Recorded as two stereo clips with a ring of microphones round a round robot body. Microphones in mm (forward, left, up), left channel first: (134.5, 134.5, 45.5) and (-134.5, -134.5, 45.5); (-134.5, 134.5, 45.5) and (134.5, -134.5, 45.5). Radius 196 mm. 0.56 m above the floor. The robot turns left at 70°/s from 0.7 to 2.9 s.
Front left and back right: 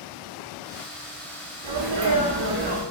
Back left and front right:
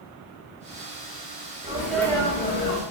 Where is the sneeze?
115° right, 1.4 m; by 2.8 s 165° left, 1.4 m.